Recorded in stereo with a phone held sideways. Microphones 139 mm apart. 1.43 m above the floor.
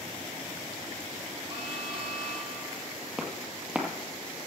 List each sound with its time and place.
1.5 s an alarm: 40° right (ahead or behind), 4 m
3.2 s footsteps: 5° right (ahead or behind), 1.9 m